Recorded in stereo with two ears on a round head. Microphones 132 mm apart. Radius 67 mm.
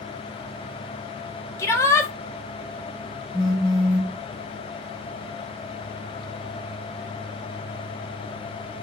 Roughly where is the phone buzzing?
Centre.